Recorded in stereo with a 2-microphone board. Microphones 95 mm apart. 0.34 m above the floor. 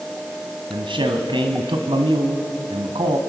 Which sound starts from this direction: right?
A man speaking, at 0.7 s.